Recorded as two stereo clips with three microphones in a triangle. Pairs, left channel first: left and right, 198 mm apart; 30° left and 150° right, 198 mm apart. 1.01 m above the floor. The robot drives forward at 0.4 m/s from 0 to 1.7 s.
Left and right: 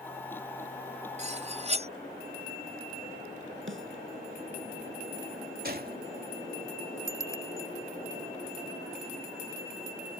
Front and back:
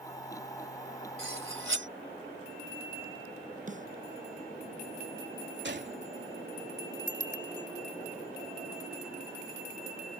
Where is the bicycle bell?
15° left.